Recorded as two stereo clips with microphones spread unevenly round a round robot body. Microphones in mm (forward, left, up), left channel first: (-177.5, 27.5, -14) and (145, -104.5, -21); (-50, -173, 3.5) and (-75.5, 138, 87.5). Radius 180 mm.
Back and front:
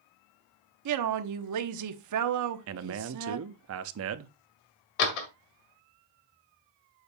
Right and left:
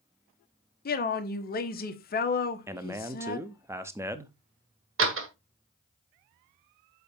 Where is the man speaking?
5° right, 0.6 m.